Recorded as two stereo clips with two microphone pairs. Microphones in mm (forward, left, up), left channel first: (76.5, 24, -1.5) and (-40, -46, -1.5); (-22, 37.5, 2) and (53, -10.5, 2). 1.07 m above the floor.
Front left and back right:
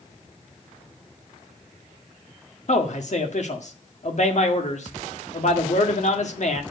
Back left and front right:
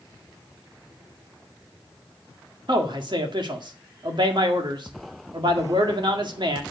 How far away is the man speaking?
About 1.8 m.